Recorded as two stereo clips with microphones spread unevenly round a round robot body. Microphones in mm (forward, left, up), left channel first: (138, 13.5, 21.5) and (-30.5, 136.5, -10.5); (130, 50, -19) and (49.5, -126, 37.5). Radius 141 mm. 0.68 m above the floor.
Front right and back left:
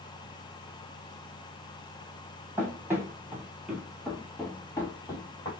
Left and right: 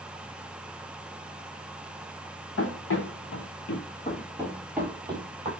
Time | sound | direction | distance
2.6 | running footsteps | 60° left | 1.3 m